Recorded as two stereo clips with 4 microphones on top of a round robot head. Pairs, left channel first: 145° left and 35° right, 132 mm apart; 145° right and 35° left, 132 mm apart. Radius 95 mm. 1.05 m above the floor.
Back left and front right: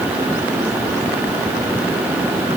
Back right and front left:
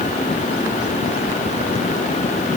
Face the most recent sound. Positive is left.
No sound to turn to.